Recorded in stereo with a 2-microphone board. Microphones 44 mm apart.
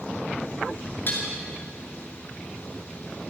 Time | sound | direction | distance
1.1 | dishes clattering | 50° left (ahead or behind) | 7.5 m